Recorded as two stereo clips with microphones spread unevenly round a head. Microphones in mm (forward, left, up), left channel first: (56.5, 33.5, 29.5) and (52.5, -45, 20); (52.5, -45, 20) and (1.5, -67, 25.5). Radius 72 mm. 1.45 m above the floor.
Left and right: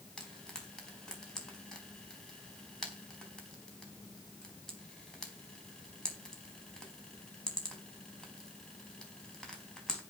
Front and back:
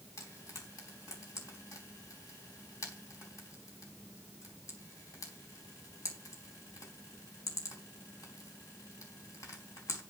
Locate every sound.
0.2 s frying: 10° left, 4.5 m